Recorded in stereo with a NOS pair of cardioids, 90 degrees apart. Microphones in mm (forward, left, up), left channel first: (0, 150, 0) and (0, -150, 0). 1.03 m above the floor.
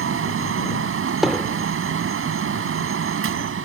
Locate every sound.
0.0 s a fan: 45° right
1.2 s hammering: straight ahead